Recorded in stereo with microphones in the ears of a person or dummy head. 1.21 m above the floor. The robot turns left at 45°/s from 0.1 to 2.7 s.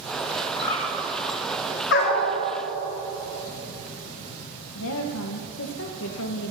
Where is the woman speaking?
75° left (ahead or behind), 0.9 m.